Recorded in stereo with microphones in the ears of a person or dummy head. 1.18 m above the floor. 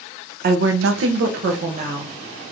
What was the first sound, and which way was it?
A woman speaking, 50° right (ahead or behind).